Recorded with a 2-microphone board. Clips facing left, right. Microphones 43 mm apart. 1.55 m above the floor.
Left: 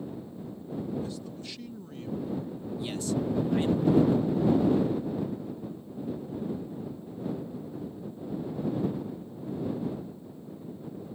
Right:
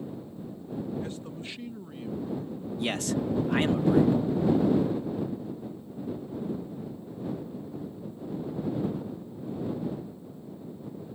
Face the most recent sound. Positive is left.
turn(degrees=-70)  # may be behind; listen again after turning